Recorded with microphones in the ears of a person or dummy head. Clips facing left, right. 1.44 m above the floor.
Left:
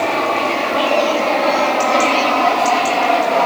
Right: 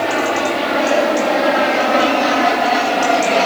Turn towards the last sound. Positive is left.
turn(degrees=-20)  # may be behind; listen again after turning